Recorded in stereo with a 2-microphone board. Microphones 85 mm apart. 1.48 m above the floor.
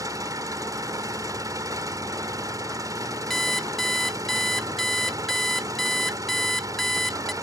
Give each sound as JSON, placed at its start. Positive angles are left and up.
{"t": 0.0, "sound": "an engine running", "side_deg": -45}
{"t": 3.3, "sound": "an alarm clock", "side_deg": 5}